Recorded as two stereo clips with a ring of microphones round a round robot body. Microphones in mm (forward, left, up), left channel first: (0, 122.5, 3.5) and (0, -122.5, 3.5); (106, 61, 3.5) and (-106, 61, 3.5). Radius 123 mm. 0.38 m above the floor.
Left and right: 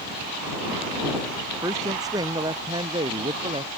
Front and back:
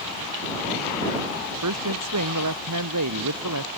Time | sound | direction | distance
1.6 | a woman speaking | 170° right | ?